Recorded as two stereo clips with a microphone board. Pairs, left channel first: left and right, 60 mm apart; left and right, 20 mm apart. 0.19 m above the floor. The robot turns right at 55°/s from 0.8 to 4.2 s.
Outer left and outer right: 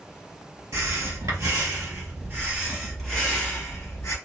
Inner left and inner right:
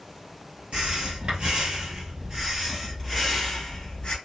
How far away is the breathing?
About 2 m.